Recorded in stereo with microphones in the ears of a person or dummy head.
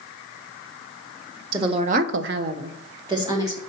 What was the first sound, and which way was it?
A woman speaking, 25° right (ahead or behind).